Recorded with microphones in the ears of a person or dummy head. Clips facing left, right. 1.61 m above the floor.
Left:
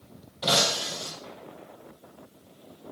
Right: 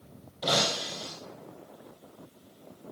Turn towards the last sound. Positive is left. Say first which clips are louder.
# left 2 dB
turn(degrees=0)  # may be behind; listen again after turning